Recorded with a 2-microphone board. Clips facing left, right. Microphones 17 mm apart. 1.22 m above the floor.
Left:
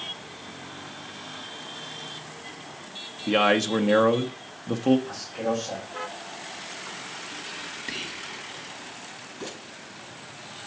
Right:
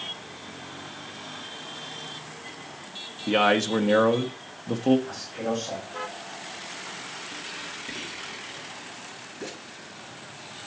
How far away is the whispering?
About 1.5 m.